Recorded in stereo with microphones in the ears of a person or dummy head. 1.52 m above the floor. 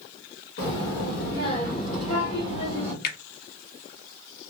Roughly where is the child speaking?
Left.